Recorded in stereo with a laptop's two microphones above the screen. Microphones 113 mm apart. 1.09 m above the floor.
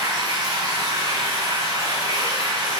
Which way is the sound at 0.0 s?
40° right (ahead or behind).